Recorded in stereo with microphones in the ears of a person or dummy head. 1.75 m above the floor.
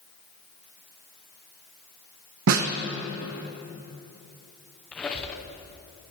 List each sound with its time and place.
2.5 s a snare drum: 65° right (ahead or behind), 0.7 m
4.9 s a squeak: 5° left (ahead or behind), 0.6 m